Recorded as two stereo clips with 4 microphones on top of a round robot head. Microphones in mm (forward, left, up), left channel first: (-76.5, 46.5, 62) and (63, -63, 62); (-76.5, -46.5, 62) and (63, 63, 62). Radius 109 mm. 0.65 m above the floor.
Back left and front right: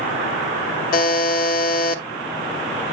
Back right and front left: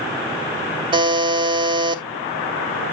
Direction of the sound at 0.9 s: 100° left.